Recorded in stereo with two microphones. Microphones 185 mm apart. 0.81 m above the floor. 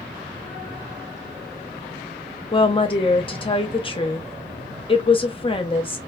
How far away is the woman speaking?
About 0.7 m.